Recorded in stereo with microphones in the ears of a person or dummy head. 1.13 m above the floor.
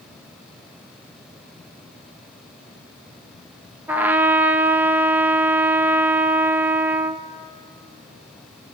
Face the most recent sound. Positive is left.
turn(degrees=-10)  # may be behind; listen again after turning